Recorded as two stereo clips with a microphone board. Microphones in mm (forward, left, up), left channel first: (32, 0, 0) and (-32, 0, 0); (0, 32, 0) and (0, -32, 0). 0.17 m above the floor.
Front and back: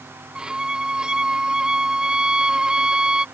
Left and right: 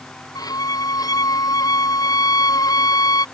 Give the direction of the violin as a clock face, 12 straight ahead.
9 o'clock.